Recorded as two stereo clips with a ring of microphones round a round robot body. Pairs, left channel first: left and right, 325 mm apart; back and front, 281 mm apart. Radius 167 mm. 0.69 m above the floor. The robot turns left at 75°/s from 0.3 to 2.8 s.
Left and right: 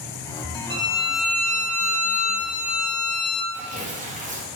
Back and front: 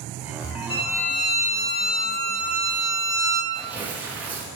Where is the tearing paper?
75° right, 1.1 m.